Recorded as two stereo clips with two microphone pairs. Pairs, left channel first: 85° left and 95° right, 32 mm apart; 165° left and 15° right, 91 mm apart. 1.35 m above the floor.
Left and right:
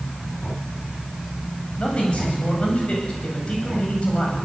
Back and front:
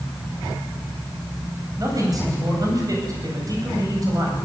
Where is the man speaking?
35° left, 9.5 m.